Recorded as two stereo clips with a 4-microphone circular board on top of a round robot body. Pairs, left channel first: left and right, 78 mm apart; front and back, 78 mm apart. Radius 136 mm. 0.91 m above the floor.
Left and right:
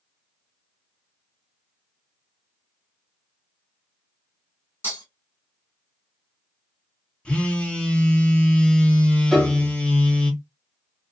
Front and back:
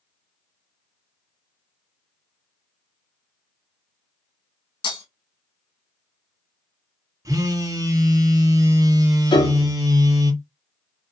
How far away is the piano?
About 0.6 m.